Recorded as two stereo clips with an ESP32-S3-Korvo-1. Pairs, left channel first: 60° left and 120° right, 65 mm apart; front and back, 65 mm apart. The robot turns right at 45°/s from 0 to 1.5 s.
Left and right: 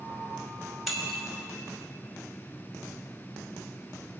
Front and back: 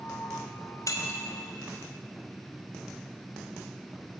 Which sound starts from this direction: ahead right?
Breaking glass, at 0.9 s.